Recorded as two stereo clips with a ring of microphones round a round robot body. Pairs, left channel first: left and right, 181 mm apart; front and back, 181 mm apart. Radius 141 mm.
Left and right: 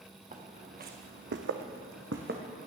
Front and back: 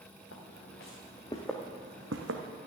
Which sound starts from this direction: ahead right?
Footsteps, at 0.3 s.